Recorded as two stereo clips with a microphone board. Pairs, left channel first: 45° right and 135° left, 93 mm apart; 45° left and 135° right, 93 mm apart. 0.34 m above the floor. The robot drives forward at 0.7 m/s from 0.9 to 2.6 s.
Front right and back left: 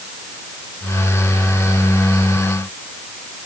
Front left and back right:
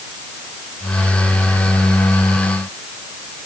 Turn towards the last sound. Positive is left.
No sound to turn to.